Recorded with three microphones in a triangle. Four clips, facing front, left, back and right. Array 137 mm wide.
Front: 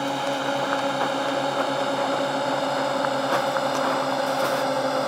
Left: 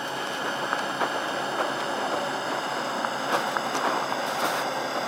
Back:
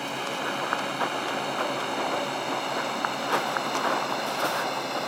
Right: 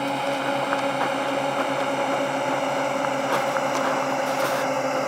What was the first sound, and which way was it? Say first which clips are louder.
A drone: right 6 dB, front 6 dB; 45° right.